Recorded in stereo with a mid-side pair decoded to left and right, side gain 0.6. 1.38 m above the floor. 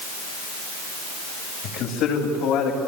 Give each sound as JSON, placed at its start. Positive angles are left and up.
{"t": 1.6, "sound": "a man speaking", "azimuth_deg": 65, "distance_m": 8.5}